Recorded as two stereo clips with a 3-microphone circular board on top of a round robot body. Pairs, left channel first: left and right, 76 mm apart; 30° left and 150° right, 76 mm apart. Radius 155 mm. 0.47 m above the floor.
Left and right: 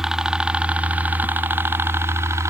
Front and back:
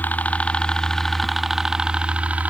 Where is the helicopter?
10° right; by 2.5 s 95° right.